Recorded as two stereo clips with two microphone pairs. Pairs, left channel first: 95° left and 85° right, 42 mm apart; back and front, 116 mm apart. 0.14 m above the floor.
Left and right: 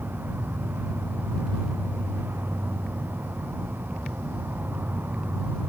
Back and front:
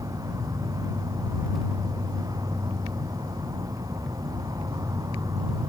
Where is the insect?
55° right.